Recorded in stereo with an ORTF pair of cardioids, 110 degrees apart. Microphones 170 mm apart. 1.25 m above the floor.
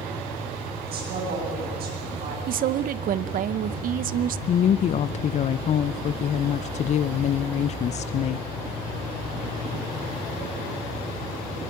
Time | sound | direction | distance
0.9 | a woman speaking | 65° right | 8.5 m
2.5 | a woman speaking | 55° right | 0.8 m
4.5 | a woman speaking | 45° left | 0.5 m